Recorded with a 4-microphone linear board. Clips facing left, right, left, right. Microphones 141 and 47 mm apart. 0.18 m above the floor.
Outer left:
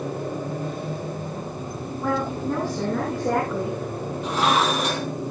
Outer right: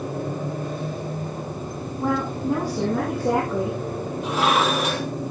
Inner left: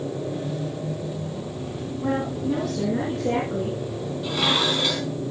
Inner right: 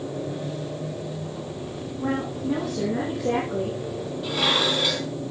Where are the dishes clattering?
5° right (ahead or behind), 4.5 m.